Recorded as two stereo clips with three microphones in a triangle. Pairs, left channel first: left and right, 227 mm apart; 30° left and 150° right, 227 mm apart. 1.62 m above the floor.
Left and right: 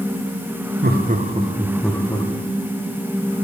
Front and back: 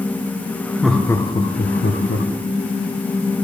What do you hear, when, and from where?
0.8 s laughter: 60° right, 0.9 m; by 2.3 s 25° left, 0.9 m